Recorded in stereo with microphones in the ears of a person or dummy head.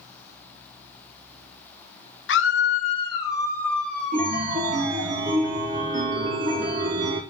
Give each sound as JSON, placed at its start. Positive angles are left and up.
{"t": 2.3, "sound": "a scream", "side_deg": 55, "distance_m": 0.5}
{"t": 4.1, "sound": "a chime", "side_deg": -35, "distance_m": 0.6}